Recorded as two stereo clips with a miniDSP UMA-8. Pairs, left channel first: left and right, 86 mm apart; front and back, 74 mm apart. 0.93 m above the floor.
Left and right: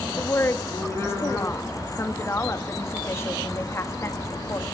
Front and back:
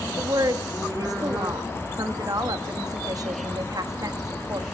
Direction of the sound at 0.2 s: 145° left.